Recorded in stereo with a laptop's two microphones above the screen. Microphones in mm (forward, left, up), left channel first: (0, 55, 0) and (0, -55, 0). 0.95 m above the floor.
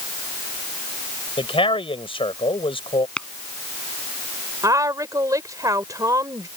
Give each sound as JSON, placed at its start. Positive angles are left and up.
{"t": 1.4, "sound": "a man speaking", "side_deg": 55}
{"t": 3.2, "sound": "tapping", "side_deg": 10}
{"t": 4.6, "sound": "a woman speaking", "side_deg": -30}